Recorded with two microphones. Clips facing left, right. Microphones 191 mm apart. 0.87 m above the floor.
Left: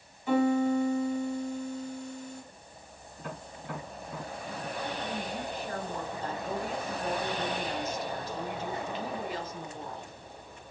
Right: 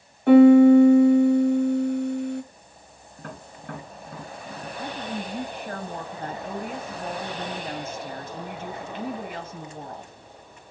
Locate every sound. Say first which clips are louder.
0.3 s a piano: right 14 dB; 65° right (ahead or behind), 0.7 m
3.2 s tapping: right 1 dB; 55° right (ahead or behind), 3 m
4.8 s a woman speaking: right 4 dB; 50° right (ahead or behind), 1.4 m